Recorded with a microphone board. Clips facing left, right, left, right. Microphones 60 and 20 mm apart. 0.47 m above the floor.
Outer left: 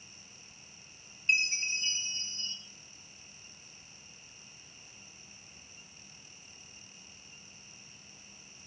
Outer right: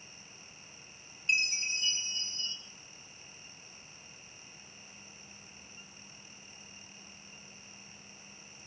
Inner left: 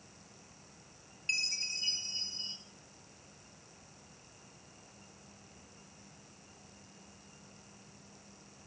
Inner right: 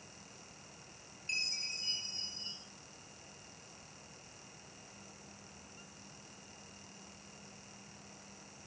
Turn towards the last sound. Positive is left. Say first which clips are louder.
# outer left 2 dB, inner left 3 dB
turn(degrees=35)  # may be behind; listen again after turning